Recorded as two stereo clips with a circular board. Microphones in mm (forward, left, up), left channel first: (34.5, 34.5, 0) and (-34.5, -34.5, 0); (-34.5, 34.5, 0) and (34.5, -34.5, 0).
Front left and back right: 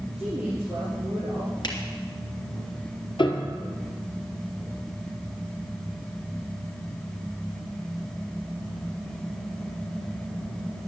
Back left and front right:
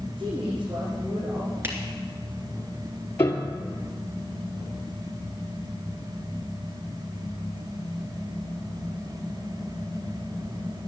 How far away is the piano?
About 1.7 m.